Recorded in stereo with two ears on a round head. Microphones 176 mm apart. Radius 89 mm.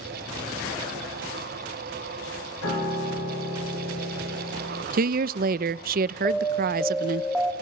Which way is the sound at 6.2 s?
Centre (ahead or behind).